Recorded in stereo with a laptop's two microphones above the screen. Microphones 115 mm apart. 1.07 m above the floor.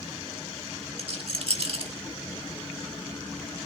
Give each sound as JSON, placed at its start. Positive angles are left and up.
{"t": 1.0, "sound": "a rattle", "side_deg": -55, "distance_m": 1.8}